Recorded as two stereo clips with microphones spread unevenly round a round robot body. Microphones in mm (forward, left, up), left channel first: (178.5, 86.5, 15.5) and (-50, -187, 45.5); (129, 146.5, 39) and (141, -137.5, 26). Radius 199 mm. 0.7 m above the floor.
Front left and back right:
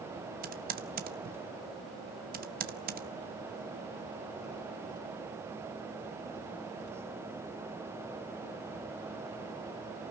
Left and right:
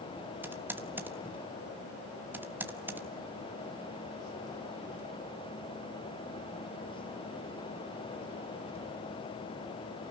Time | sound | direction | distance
0.4 | typing on a keyboard | 150° right | 1.1 m